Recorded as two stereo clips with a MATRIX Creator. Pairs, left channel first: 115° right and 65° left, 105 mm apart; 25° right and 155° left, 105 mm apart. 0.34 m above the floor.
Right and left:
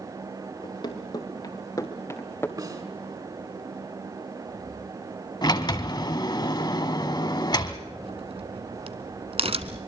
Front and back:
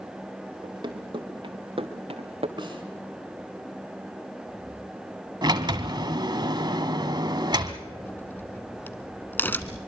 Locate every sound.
0.6 s running footsteps: 155° right, 2.5 m; by 2.5 s straight behind, 1.9 m
2.6 s a snare drum: 115° left, 4.5 m
5.4 s a sliding door: 160° right, 1.2 m
8.0 s a crack: 50° left, 1.1 m